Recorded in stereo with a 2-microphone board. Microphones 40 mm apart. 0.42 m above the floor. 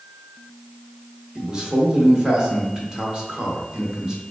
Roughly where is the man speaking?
Right.